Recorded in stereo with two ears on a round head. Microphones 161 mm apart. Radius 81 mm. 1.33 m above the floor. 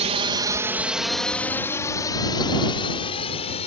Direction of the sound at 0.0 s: 35° right (ahead or behind).